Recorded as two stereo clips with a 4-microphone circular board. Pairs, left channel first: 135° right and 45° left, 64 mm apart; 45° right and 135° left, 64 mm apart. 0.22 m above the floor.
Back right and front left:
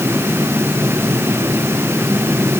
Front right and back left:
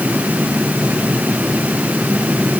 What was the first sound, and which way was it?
Only background noise.